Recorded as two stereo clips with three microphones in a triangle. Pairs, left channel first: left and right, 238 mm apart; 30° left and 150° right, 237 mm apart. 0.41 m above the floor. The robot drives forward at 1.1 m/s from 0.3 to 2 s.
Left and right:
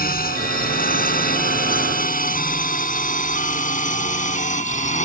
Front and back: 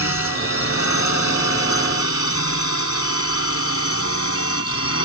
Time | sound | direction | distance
0.0 | a drone | 40° left | ?